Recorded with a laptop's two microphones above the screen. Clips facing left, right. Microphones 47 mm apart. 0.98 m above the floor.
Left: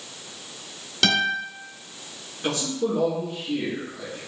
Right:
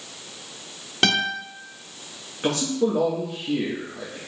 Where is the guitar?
30° right (ahead or behind), 1.1 m.